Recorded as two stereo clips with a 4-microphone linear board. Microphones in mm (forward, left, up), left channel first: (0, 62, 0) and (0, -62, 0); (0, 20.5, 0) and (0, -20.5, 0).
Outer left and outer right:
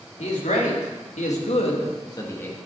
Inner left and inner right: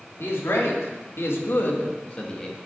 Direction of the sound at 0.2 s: 75° left (ahead or behind).